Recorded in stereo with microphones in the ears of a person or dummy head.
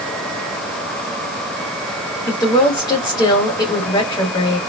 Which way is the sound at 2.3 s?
25° left (ahead or behind).